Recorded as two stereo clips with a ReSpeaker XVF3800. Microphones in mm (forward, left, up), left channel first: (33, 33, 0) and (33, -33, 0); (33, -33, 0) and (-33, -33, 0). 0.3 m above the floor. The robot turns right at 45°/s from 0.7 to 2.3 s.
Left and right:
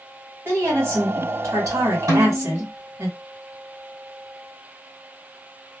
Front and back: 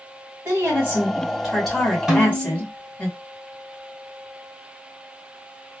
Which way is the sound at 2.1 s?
100° right.